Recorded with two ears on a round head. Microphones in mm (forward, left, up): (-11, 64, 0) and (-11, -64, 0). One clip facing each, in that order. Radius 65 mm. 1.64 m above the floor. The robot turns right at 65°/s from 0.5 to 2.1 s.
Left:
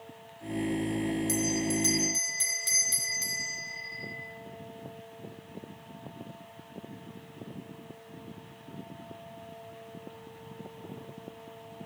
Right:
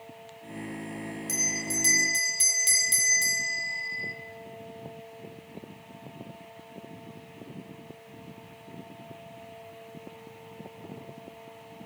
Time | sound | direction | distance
1.3 | a bell | straight behind | 1.3 m